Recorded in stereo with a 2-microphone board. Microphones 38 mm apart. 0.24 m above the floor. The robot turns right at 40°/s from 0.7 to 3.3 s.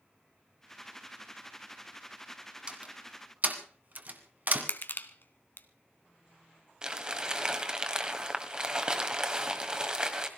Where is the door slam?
25° right (ahead or behind), 2 m; by 4.7 s 45° right (ahead or behind), 2 m.